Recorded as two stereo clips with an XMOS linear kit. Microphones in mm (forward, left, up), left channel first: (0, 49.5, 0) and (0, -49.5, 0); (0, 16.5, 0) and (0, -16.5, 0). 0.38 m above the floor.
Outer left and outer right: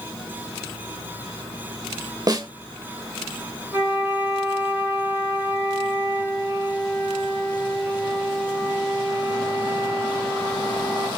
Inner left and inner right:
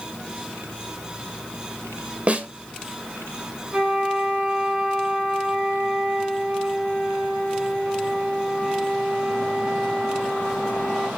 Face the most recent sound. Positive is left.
turn(degrees=-25)  # may be behind; listen again after turning